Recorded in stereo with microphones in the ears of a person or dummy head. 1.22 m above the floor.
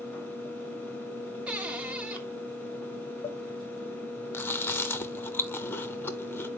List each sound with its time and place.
0.0 s a fan: 10° left (ahead or behind), 1.7 m
1.5 s a cupboard door: 10° right (ahead or behind), 0.9 m
4.3 s chewing: 10° left (ahead or behind), 1.0 m